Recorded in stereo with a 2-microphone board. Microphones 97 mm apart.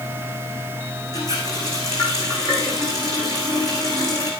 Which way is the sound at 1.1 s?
45° left (ahead or behind).